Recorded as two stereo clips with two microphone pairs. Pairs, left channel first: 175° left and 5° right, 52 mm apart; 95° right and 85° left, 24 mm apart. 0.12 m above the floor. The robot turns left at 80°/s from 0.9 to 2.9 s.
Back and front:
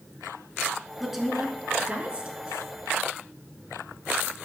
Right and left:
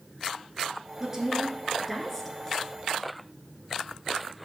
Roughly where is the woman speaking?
Left.